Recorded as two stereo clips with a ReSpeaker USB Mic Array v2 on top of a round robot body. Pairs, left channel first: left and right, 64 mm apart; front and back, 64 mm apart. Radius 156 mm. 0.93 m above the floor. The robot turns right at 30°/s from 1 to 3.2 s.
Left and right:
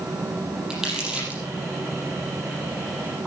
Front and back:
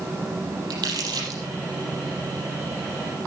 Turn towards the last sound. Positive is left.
turn(degrees=-105)